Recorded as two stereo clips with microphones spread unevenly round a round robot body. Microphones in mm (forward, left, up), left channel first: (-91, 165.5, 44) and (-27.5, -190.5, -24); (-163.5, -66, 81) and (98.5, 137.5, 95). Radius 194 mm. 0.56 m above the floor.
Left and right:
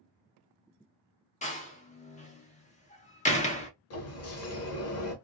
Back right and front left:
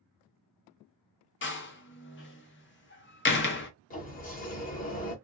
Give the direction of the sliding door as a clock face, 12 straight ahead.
7 o'clock.